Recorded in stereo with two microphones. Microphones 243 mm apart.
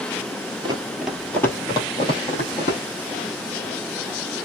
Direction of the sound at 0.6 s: 20° right (ahead or behind).